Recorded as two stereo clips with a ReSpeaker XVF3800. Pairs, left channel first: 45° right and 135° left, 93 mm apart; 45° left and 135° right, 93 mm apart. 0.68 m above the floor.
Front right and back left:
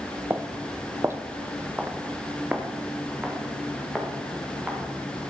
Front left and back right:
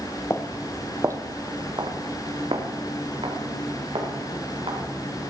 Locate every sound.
0.3 s footsteps: 85° left, 0.8 m; by 5.3 s 145° right, 5 m